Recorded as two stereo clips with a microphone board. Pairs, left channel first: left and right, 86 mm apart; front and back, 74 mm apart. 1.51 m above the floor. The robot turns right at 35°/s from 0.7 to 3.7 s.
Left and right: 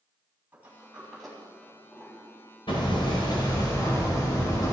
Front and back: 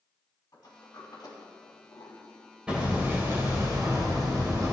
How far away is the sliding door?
About 3 m.